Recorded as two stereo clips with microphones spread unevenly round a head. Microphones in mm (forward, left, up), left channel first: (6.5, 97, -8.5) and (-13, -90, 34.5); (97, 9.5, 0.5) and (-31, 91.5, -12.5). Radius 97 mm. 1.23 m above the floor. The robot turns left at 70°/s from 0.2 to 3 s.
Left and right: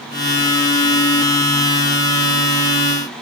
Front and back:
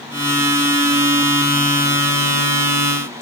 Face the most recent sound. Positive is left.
No sound to turn to.